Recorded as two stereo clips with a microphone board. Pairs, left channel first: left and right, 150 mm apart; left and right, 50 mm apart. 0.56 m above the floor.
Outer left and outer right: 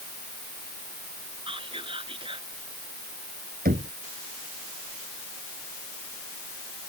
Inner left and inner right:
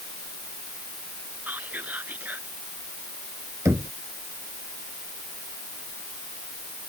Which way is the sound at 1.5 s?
35° right (ahead or behind).